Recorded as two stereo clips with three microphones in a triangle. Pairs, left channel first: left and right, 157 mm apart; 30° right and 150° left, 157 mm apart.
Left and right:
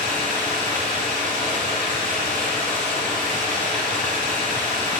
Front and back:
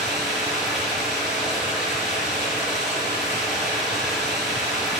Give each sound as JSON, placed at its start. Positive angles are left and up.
{"t": 0.0, "sound": "running water", "azimuth_deg": -120, "distance_m": 5.5}